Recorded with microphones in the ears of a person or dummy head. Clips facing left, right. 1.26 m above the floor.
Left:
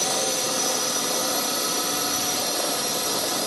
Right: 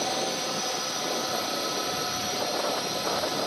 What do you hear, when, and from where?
0.0 s a drone: 60° left (ahead or behind)